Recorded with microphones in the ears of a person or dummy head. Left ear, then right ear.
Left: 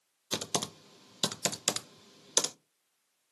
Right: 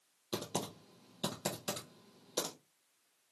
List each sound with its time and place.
0.3 s typing on a keyboard: 60° left (ahead or behind), 0.5 m